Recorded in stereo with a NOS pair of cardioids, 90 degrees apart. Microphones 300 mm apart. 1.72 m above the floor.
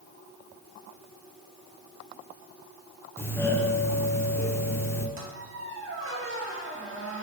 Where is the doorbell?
10° left, 1.5 m.